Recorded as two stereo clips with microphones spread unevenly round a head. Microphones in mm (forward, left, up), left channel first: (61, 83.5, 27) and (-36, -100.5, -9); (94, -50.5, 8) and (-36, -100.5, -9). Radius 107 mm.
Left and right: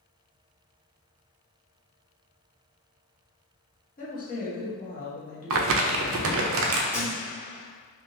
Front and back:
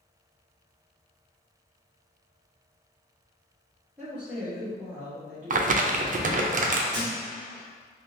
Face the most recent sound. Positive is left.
turn(degrees=150)